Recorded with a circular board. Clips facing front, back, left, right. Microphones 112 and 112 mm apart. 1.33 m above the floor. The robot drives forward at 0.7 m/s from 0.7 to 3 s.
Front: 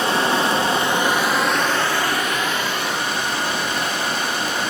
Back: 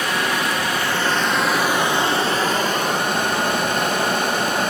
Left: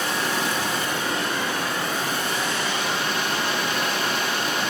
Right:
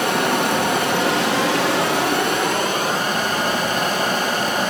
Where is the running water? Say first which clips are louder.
Front 3 dB, right 7 dB; 65° right, 1.1 m; by 4.7 s 140° right, 1.5 m.